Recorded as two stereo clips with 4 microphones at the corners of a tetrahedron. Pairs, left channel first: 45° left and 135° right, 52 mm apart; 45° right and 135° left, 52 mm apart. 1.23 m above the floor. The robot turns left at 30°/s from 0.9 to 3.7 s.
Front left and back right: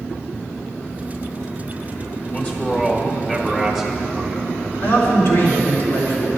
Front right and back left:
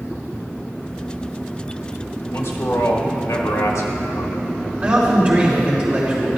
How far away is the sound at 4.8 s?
About 3 m.